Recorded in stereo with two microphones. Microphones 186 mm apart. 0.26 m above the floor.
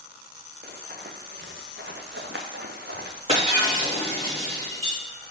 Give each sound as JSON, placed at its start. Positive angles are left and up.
{"t": 0.6, "sound": "running footsteps", "side_deg": -55, "distance_m": 1.6}
{"t": 3.3, "sound": "breaking glass", "side_deg": -30, "distance_m": 3.0}